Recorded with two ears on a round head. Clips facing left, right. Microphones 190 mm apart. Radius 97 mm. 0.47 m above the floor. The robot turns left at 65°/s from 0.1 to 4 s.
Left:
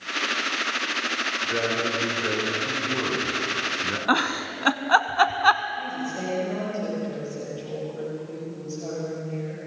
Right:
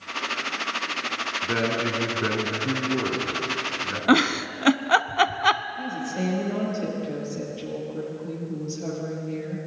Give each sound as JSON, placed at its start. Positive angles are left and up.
{"t": 1.4, "sound": "a man speaking", "azimuth_deg": -60, "distance_m": 4.5}
{"t": 4.1, "sound": "a giggle", "side_deg": -30, "distance_m": 0.6}
{"t": 5.8, "sound": "a woman speaking", "side_deg": -30, "distance_m": 9.5}